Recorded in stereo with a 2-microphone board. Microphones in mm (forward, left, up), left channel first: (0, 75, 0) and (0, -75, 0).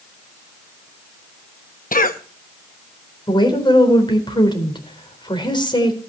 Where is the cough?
65° left (ahead or behind), 0.7 m.